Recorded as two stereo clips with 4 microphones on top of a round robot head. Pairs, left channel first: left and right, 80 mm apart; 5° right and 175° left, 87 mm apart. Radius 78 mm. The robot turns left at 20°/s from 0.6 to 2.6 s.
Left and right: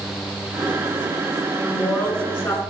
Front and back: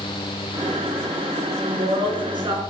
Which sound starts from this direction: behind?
A woman speaking, at 1.6 s.